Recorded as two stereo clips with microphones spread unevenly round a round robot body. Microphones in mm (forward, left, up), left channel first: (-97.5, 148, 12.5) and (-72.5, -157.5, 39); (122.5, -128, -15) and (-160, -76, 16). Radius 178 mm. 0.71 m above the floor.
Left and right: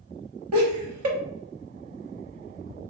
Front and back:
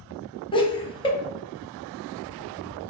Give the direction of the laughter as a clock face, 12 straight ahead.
2 o'clock.